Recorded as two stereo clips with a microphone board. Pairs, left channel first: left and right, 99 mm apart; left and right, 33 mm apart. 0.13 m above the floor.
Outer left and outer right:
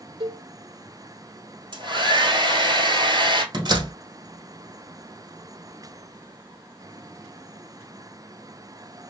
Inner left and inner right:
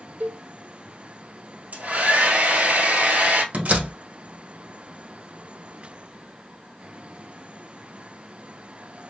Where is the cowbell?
70° right (ahead or behind), 0.7 m.